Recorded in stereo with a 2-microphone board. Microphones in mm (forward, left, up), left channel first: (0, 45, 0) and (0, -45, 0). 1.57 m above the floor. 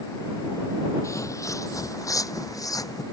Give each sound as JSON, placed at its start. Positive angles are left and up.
{"t": 1.0, "sound": "footsteps", "side_deg": 35}